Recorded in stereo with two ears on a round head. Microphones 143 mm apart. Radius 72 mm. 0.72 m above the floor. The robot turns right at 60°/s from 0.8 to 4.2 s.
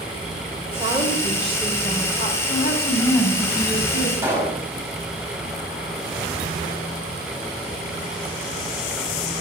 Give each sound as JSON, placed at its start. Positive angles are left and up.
{"t": 0.7, "sound": "a woman speaking", "azimuth_deg": -35, "distance_m": 2.5}
{"t": 2.5, "sound": "a woman speaking", "azimuth_deg": 120, "distance_m": 5.0}
{"t": 4.2, "sound": "a pop", "side_deg": -15, "distance_m": 5.5}